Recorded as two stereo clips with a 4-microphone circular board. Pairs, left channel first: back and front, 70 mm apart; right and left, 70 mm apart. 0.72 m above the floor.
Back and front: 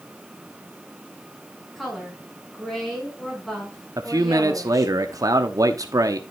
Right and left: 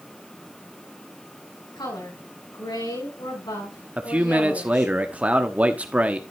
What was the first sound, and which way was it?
A woman speaking, 90° right.